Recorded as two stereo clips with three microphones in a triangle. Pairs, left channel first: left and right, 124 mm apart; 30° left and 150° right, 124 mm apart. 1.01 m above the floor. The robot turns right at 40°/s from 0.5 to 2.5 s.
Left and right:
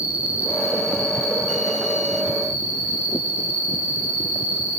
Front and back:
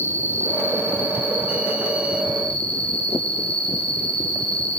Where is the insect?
130° right, 8 m; by 4.8 s 50° right, 8 m.